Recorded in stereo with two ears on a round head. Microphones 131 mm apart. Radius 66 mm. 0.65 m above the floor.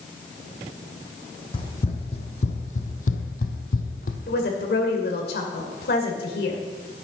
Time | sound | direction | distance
1.5 | running footsteps | 35° left (ahead or behind) | 1.8 m
4.3 | a woman speaking | 70° left (ahead or behind) | 2.5 m